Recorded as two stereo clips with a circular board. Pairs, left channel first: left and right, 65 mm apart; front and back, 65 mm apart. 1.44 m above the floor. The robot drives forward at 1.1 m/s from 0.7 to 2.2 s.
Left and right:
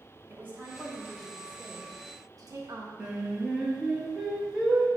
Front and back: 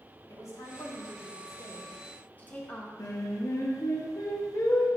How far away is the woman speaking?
About 2.5 m.